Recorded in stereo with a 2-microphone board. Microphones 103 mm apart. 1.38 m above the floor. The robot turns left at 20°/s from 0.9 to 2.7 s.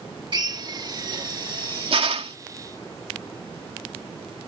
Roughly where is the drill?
Right.